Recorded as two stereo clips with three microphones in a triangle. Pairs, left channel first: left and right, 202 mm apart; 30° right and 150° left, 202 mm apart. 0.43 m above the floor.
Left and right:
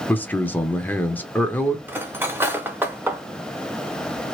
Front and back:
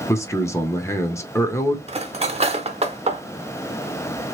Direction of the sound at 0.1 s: 20° left.